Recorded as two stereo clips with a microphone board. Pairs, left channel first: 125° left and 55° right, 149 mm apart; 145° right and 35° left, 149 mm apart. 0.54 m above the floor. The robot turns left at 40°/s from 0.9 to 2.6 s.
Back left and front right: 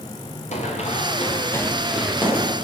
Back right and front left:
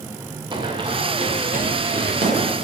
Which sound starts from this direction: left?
Running footsteps, at 0.5 s.